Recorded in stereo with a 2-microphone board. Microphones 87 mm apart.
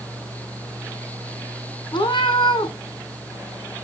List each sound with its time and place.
1.9 s a cat meowing: 70° left (ahead or behind), 1.6 m